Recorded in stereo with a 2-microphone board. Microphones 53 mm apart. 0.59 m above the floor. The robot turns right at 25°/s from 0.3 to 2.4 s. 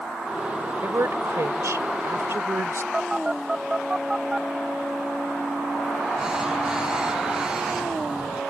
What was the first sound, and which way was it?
A woman speaking, 105° right.